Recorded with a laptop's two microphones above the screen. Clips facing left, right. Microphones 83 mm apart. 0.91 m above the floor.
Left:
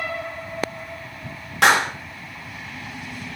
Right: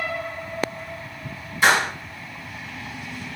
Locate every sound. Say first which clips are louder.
1.6 s a clap: left 2 dB; 65° left (ahead or behind), 0.8 m